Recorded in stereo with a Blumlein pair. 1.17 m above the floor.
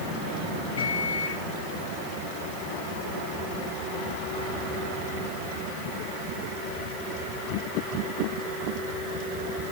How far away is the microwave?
About 2.5 m.